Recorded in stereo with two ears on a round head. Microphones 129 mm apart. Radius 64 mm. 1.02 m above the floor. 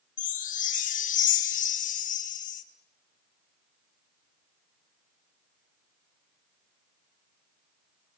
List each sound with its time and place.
0.2 s a chime: 60° left (ahead or behind), 1.5 m